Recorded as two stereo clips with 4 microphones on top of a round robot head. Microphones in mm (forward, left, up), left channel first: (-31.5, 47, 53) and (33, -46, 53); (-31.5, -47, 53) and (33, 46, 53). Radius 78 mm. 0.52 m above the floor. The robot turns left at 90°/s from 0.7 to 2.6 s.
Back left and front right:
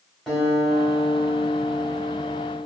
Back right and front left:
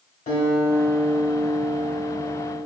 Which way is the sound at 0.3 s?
150° right.